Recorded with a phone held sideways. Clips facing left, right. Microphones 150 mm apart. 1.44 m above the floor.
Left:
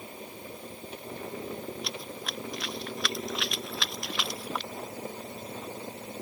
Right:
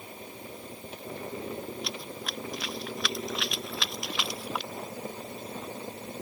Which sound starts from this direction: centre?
Running footsteps, at 1.8 s.